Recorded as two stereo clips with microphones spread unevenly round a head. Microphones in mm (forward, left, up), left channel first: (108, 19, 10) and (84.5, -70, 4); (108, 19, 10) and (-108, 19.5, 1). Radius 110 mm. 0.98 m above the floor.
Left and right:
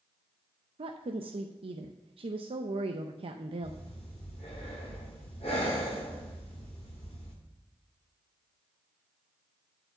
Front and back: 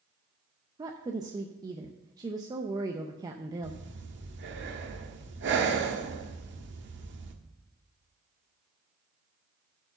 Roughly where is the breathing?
Behind left.